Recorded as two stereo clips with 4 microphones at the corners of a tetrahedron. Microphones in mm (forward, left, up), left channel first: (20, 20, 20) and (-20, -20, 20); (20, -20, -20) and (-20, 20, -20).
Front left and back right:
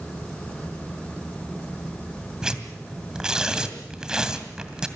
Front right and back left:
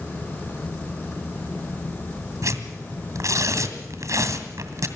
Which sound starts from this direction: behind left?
Tearing paper, at 2.4 s.